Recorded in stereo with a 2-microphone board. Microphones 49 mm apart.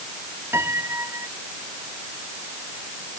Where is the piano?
60° right (ahead or behind).